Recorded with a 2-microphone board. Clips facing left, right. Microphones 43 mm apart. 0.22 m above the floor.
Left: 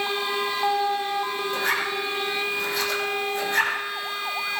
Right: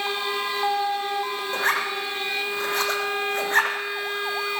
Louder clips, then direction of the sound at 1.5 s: Right 2 dB; 45° right (ahead or behind).